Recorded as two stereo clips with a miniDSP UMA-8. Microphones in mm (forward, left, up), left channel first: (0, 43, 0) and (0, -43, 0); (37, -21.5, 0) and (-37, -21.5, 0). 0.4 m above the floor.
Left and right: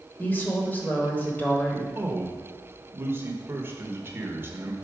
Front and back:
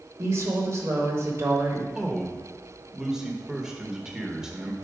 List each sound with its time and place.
0.2 s a woman speaking: 150° left, 1.2 m
1.9 s a man speaking: 110° right, 0.8 m